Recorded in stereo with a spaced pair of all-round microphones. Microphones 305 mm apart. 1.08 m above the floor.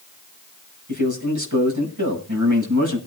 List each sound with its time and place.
0.9 s a man speaking: 80° right, 6 m